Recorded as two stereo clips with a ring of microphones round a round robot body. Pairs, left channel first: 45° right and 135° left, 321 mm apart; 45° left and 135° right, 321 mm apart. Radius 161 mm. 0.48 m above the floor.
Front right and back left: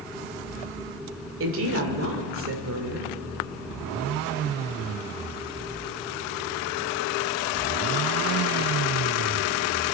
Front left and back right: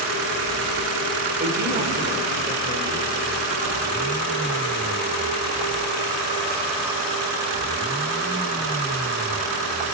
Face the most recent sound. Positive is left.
turn(degrees=170)